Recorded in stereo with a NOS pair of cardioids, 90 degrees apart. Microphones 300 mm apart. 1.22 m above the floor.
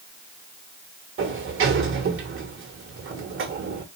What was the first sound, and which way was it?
A sliding door, 45° right.